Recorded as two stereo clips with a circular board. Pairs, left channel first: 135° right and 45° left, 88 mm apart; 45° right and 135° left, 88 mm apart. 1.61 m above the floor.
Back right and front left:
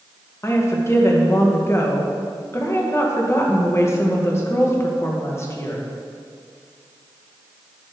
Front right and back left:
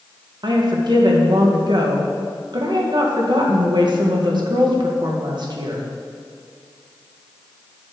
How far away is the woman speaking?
About 1.9 m.